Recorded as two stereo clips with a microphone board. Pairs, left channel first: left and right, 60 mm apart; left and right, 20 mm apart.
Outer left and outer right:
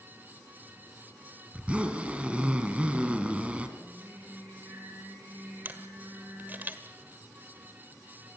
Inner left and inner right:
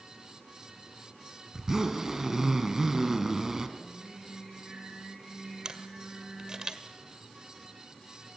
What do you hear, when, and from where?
1.5 s a zipper: 20° right (ahead or behind), 2.5 m
3.8 s singing: 35° right (ahead or behind), 4 m
5.7 s a camera shutter: 30° right (ahead or behind), 1.6 m